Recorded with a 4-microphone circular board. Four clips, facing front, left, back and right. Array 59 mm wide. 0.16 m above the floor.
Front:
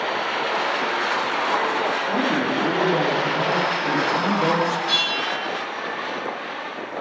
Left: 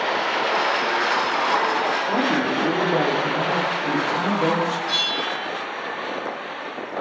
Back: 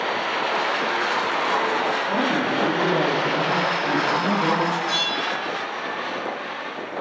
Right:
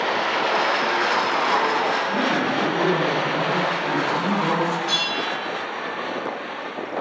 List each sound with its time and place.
2.1 s a man speaking: 60° left, 7 m
4.9 s a bell: 20° right, 5.5 m